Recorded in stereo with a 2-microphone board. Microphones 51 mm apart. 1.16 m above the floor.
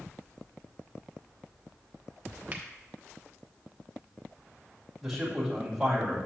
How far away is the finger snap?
About 1.0 m.